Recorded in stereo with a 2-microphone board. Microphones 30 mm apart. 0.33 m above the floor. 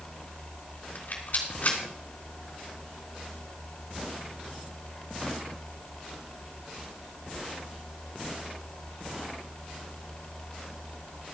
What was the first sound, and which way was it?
A rattle, 60° left (ahead or behind).